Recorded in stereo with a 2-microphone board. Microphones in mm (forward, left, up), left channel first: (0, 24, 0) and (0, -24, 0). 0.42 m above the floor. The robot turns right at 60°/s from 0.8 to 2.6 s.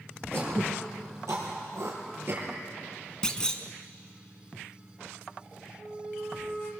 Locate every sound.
0.3 s throat clearing: 50° right (ahead or behind), 5 m; by 2.5 s 25° right (ahead or behind), 5 m
3.2 s a clunk: 15° left (ahead or behind), 1.2 m
5.8 s a flute: 45° left (ahead or behind), 3 m